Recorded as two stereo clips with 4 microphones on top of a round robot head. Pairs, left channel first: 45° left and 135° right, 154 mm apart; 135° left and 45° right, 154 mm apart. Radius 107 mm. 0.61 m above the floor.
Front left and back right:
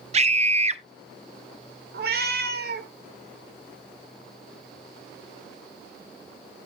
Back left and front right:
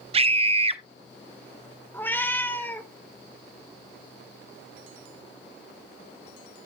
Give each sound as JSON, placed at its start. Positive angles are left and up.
{"t": 0.1, "sound": "a scream", "azimuth_deg": -95, "distance_m": 1.2}
{"t": 1.9, "sound": "a cat meowing", "azimuth_deg": -150, "distance_m": 1.5}